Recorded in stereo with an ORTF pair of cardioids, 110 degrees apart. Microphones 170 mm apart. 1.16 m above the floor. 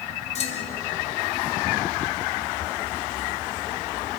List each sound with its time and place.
0.3 s a clunk: 45° left, 2.5 m